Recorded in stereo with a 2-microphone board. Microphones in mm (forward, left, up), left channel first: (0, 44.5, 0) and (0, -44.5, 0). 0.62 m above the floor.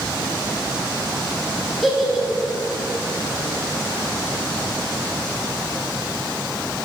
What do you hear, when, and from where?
1.8 s a giggle: centre (ahead or behind), 1.3 m